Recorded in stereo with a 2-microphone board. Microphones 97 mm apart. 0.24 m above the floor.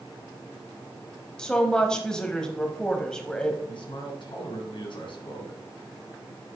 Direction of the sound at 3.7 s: 60° left (ahead or behind).